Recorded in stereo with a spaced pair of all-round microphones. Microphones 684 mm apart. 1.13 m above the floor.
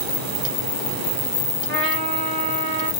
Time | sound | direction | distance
1.7 | a trumpet | 15° right (ahead or behind) | 1.6 m